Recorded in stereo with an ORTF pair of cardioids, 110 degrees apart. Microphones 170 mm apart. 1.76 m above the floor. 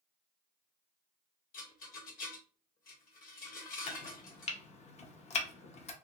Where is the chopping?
40° left, 0.6 m.